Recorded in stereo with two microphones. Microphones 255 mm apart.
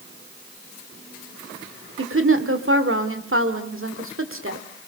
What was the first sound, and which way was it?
A woman speaking, 55° right (ahead or behind).